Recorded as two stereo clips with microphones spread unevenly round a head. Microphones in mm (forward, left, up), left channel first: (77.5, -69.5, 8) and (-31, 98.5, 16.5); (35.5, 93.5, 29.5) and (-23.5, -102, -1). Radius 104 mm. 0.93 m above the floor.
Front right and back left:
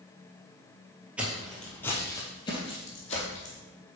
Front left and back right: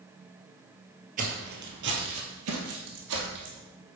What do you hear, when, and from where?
1.2 s footsteps: 155° right, 1.3 m; by 3.6 s 115° right, 2 m